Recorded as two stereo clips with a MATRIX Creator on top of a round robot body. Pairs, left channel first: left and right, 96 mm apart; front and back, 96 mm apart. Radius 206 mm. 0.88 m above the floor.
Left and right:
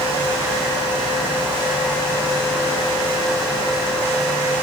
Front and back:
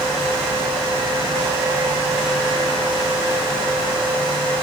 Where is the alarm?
No alarm in this recording.